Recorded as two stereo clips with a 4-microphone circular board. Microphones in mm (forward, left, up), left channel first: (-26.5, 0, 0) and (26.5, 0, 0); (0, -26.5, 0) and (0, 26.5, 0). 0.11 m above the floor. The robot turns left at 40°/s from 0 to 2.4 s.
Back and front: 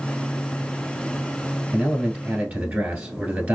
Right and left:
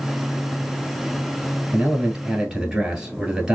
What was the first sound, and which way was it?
A man speaking, 55° left.